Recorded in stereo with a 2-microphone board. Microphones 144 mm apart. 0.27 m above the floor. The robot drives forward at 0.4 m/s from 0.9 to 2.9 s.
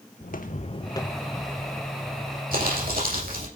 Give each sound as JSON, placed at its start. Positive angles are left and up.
{"t": 0.2, "sound": "footsteps", "side_deg": 75, "distance_m": 0.9}
{"t": 2.5, "sound": "crumpling", "side_deg": -80, "distance_m": 5.5}